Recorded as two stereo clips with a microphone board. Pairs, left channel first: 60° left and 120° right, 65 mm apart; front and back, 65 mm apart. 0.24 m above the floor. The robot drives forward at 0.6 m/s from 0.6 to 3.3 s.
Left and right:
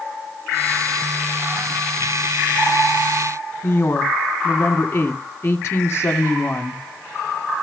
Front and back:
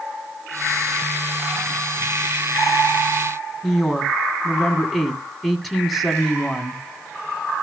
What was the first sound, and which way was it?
A woman speaking, 90° left.